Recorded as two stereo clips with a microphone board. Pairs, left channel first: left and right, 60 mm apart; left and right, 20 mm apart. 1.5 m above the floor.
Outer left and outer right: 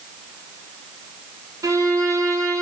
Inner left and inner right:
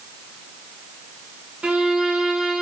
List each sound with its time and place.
1.6 s a violin: 80° right, 1.6 m